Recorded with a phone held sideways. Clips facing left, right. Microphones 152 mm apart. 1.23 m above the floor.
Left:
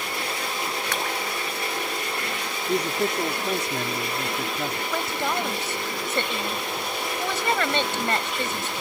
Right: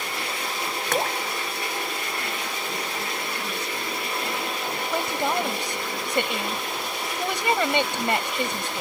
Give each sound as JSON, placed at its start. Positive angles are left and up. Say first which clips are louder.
{"t": 0.9, "sound": "dripping", "louder": "right 7 dB", "side_deg": -45}
{"t": 2.7, "sound": "a man speaking", "louder": "left 7 dB", "side_deg": 75}
{"t": 4.9, "sound": "a woman speaking", "louder": "right 4 dB", "side_deg": -15}